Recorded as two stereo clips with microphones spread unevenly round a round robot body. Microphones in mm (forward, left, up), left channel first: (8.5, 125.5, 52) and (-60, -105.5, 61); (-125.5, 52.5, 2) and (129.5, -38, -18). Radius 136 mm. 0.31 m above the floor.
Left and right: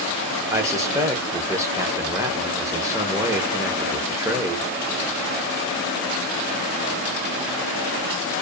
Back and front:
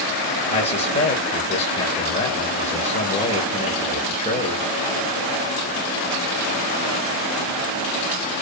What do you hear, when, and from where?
0.5 s a man speaking: 170° right, 0.9 m